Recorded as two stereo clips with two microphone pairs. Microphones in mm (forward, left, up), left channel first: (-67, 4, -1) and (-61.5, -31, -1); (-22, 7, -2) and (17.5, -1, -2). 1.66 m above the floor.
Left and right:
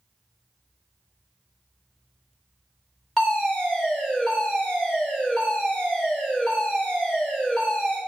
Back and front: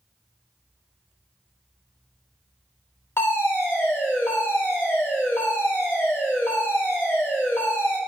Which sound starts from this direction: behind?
A fire alarm, at 3.2 s.